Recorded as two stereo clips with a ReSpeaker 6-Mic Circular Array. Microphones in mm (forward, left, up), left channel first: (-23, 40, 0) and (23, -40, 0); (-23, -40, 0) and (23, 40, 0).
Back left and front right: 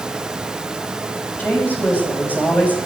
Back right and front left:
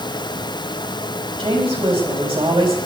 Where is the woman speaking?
50° left, 5 m.